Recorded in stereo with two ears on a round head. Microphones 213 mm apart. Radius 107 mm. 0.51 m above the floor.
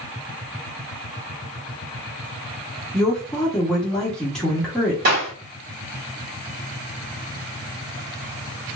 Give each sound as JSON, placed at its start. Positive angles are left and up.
{"t": 2.9, "sound": "a woman speaking", "side_deg": 5, "distance_m": 0.8}
{"t": 5.0, "sound": "a clap", "side_deg": -45, "distance_m": 1.9}